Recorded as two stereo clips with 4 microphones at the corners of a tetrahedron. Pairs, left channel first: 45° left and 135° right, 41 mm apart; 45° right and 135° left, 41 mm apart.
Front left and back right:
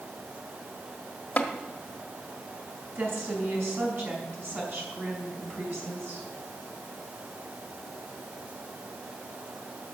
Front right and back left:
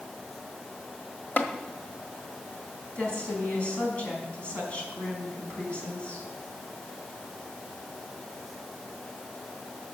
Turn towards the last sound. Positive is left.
turn(degrees=-105)